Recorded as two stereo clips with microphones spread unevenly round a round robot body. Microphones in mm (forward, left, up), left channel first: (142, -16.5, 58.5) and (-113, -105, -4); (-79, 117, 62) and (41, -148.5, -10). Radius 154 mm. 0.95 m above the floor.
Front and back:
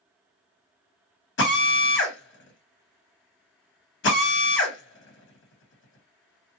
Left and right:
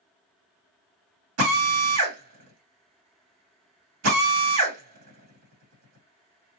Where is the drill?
30° right, 2 m.